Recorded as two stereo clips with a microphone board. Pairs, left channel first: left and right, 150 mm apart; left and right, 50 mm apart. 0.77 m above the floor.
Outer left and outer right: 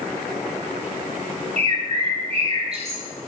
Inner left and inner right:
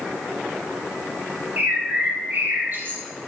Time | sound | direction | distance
1.6 | a bird | 40° right (ahead or behind) | 0.6 m